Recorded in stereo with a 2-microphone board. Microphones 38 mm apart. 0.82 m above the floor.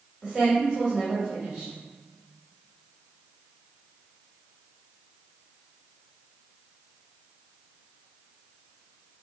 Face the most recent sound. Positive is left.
turn(degrees=-30)  # may be behind; listen again after turning